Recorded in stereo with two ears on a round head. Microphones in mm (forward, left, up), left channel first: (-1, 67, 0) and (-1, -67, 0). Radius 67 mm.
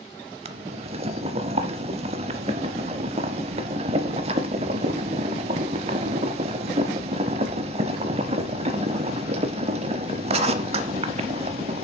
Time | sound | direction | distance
0.5 | boiling | 40° right (ahead or behind) | 0.6 m